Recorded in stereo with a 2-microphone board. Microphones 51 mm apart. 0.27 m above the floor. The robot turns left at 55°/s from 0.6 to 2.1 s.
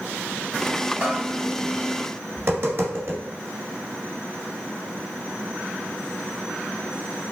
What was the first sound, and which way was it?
A bell, 25° right (ahead or behind).